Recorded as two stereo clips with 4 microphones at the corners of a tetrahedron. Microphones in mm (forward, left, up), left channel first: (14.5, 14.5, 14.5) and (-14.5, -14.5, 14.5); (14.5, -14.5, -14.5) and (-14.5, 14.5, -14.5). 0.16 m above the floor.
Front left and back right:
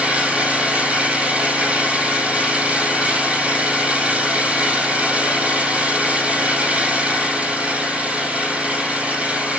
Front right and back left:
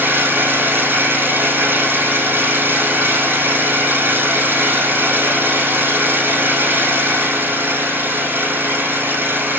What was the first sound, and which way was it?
An engine running, 165° left.